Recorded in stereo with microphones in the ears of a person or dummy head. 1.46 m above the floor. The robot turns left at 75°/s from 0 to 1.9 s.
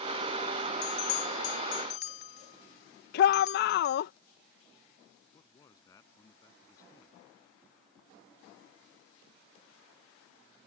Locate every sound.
0.8 s a bell: 40° left (ahead or behind); by 4.0 s 55° left (ahead or behind)
3.1 s a shout: 60° left (ahead or behind)
5.3 s a man speaking: 25° left (ahead or behind)